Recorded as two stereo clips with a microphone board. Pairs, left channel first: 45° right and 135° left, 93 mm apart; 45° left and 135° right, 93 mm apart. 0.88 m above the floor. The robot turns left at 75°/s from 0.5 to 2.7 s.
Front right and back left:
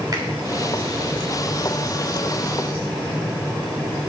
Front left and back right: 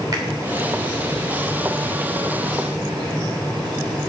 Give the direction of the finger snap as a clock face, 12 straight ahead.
6 o'clock.